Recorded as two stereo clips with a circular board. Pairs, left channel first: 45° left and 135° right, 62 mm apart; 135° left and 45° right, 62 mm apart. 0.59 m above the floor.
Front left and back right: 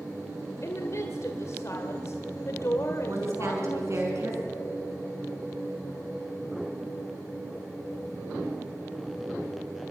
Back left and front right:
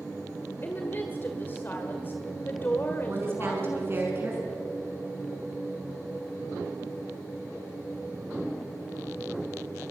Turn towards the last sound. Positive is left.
turn(degrees=-95)